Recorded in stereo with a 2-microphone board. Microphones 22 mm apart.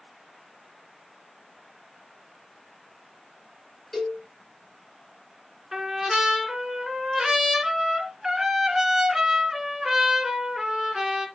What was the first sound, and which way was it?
A cowbell, 20° left (ahead or behind).